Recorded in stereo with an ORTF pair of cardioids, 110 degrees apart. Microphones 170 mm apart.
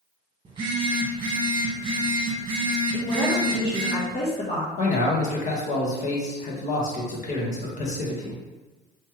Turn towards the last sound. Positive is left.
turn(degrees=45)